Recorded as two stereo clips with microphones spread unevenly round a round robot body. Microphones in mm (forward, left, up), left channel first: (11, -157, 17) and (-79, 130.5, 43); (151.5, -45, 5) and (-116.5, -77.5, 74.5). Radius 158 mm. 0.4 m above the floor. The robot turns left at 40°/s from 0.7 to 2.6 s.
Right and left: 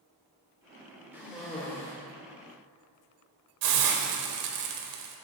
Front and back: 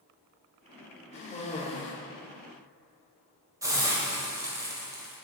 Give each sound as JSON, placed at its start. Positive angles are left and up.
{"t": 1.1, "sound": "a cough", "azimuth_deg": 25, "distance_m": 1.4}
{"t": 3.6, "sound": "a hiss", "azimuth_deg": 100, "distance_m": 1.1}